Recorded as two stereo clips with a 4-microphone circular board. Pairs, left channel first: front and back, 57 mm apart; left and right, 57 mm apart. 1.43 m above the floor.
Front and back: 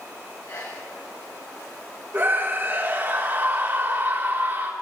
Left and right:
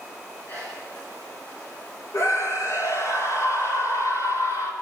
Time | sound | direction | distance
0.5 | a sneeze | 30° left | 8.5 m
2.1 | a scream | 120° left | 4 m